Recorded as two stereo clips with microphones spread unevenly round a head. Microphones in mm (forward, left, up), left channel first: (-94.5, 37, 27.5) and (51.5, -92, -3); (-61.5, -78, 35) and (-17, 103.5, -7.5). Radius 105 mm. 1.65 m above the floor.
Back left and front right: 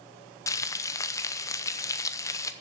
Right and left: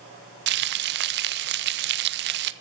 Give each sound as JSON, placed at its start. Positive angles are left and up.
{"t": 0.5, "sound": "frying", "azimuth_deg": 85, "distance_m": 0.5}